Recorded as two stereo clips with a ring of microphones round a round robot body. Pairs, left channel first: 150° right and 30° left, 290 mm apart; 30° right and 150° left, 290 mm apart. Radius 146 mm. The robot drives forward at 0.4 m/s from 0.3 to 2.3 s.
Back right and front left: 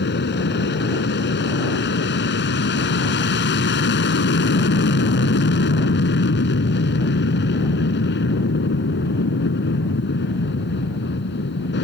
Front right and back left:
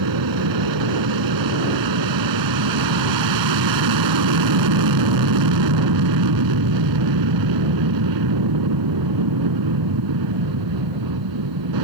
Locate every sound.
0.0 s an aircraft: 155° left